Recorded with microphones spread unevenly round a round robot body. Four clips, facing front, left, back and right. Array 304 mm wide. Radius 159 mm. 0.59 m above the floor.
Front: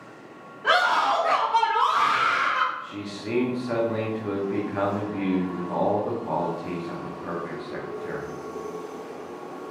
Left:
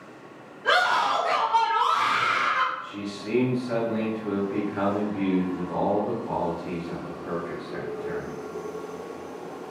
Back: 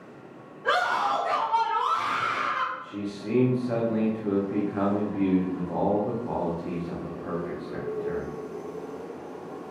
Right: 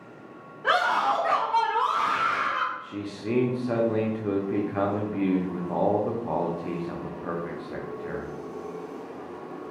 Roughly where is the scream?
Ahead right.